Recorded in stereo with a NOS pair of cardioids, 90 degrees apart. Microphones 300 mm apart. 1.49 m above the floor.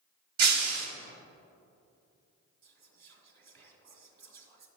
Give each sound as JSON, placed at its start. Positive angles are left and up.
{"t": 0.4, "sound": "breaking glass", "azimuth_deg": -60, "distance_m": 2.5}
{"t": 2.6, "sound": "whispering", "azimuth_deg": -60, "distance_m": 2.5}